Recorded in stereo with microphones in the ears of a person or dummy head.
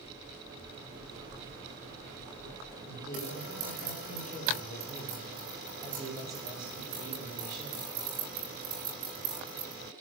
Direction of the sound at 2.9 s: 65° left (ahead or behind).